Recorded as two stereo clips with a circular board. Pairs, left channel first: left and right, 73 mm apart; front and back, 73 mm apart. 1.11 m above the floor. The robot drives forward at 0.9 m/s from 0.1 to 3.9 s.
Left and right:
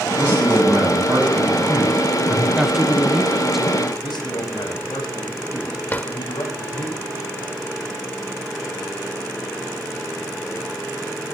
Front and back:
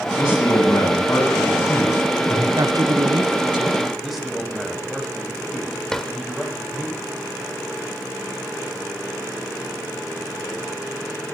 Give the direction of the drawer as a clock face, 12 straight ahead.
9 o'clock.